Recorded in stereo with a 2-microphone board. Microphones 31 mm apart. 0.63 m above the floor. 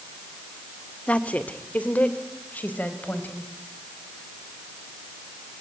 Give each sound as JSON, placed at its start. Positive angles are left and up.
{"t": 1.1, "sound": "a woman speaking", "side_deg": 45, "distance_m": 1.7}